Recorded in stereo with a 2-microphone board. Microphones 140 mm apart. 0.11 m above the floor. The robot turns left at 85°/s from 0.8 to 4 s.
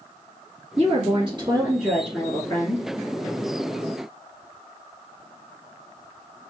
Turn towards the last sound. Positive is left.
turn(degrees=25)